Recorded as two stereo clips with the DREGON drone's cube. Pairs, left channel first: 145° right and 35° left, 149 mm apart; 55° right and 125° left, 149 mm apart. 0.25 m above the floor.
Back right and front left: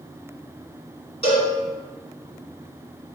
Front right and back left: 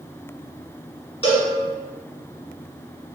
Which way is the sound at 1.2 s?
105° right.